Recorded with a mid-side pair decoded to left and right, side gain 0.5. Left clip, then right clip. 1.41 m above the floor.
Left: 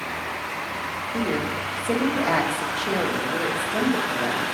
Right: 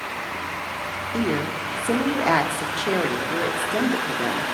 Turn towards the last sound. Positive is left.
turn(degrees=-35)